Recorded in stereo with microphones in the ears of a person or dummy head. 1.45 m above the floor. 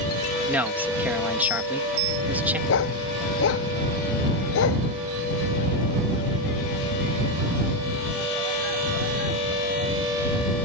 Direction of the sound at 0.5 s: 5° right (ahead or behind).